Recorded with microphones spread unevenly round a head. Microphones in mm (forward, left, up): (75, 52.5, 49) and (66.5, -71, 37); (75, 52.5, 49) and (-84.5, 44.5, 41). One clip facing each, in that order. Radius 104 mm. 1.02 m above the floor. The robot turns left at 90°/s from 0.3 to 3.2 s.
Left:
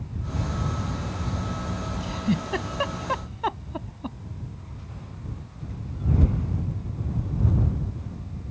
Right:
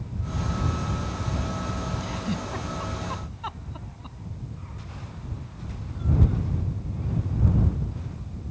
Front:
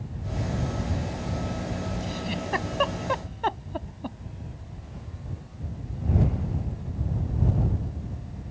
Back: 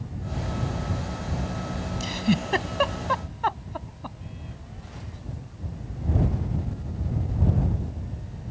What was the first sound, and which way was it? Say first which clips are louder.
A giggle: left 4 dB, back 6 dB; 170° left.